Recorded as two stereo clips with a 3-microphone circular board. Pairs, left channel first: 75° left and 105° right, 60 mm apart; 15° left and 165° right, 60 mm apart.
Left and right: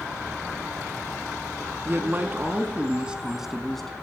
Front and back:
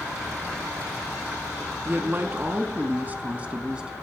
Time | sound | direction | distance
1.9 | a man speaking | 135° right | 2 m